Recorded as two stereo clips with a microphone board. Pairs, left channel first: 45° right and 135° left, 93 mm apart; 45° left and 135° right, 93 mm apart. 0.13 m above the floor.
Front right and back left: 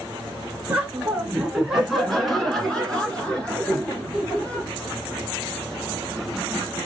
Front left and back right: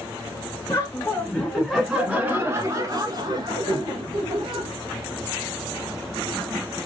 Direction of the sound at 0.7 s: 65° left.